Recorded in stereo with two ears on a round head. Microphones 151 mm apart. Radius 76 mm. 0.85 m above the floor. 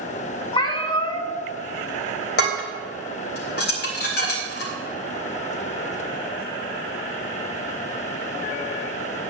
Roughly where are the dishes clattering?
Left.